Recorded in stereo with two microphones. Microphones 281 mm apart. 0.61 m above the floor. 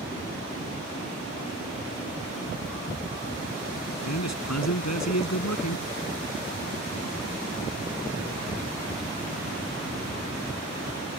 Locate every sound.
4.0 s a man speaking: 75° left (ahead or behind)